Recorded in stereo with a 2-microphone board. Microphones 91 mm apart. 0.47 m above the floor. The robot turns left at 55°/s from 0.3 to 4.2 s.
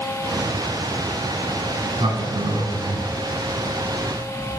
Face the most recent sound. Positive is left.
turn(degrees=15)  # may be behind; listen again after turning